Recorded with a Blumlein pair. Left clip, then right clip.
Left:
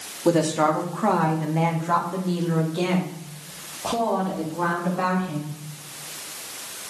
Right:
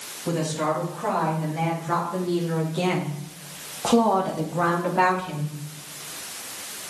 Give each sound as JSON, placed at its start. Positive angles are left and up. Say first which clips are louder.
{"t": 0.2, "sound": "a woman speaking", "louder": "left 6 dB", "azimuth_deg": 40, "distance_m": 2.5}